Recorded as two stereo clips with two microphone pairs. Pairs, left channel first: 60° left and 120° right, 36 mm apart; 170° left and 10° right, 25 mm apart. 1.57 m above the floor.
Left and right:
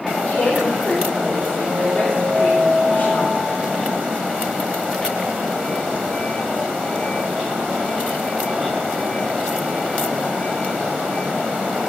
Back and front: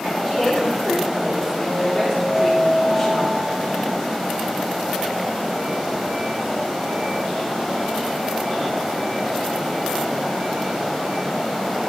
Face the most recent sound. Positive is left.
turn(degrees=125)